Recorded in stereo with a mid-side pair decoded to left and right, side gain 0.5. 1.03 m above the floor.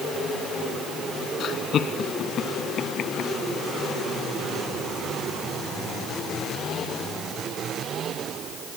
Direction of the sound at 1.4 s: 55° left.